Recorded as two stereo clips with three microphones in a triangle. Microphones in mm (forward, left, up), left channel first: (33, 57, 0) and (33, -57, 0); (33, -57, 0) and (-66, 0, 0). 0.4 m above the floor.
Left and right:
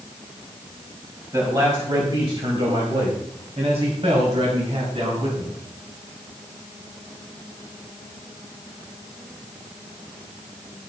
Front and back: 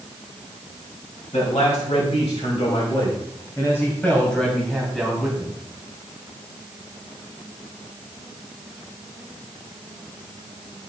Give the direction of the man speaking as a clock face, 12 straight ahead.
1 o'clock.